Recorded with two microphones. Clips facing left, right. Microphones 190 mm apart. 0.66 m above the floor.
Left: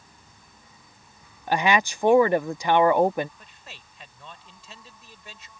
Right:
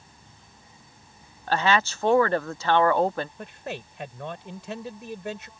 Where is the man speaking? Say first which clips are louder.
Right 15 dB; 70° right (ahead or behind).